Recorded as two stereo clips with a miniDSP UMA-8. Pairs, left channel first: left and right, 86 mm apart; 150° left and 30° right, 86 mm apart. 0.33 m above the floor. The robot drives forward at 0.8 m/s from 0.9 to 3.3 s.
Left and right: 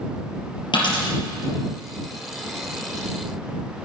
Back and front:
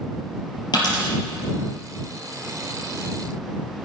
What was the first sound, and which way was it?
A dropped coin, 115° left.